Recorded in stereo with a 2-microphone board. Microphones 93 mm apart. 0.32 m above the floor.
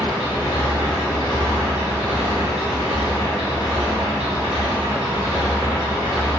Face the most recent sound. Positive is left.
turn(degrees=70)  # may be behind; listen again after turning